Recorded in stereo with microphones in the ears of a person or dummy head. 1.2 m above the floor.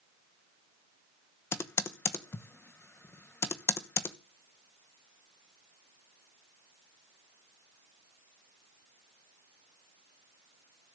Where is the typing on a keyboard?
10° left (ahead or behind), 1.0 m.